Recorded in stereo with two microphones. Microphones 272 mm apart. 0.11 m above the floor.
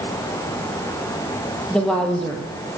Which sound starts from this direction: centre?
A woman speaking, at 1.7 s.